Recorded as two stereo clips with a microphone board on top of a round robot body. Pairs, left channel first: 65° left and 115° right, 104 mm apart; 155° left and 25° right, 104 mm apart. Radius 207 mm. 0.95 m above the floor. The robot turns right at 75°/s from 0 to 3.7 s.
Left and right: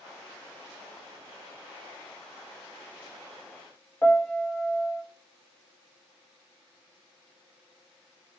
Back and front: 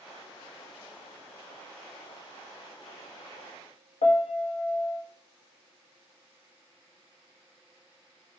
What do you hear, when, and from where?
4.0 s a piano: 140° left, 0.9 m